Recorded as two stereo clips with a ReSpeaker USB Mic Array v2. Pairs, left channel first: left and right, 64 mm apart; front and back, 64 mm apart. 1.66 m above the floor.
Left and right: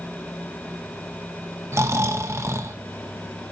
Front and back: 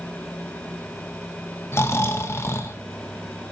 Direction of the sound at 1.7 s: 45° right.